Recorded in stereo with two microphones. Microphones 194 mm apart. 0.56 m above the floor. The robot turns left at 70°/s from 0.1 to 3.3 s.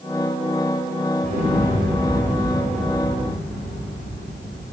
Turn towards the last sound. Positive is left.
turn(degrees=175)